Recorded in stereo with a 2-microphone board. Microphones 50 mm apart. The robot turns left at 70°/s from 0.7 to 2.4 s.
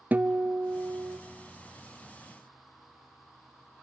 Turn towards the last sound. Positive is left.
turn(degrees=-155)